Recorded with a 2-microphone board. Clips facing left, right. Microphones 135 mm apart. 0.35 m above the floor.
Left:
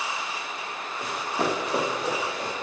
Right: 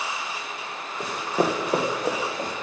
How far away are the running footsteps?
About 1.7 m.